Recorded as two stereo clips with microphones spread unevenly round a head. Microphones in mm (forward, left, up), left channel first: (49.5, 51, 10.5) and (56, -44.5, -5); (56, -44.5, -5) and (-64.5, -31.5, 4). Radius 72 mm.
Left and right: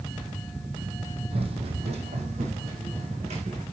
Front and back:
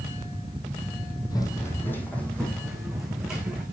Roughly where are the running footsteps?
Ahead right.